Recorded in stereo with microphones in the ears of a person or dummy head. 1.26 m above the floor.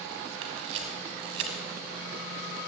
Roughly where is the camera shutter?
Right.